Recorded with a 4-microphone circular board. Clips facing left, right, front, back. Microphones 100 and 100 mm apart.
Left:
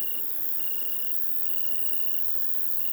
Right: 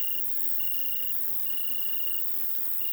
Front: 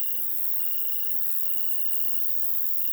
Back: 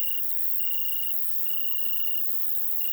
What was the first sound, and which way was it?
An insect, 175° left.